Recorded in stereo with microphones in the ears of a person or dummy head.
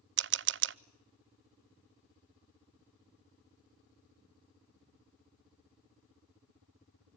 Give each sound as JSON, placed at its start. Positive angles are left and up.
{"t": 0.2, "sound": "a camera shutter", "side_deg": -55, "distance_m": 0.6}